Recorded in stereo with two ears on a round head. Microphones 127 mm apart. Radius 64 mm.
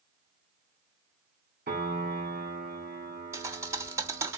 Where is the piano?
80° right, 3 m.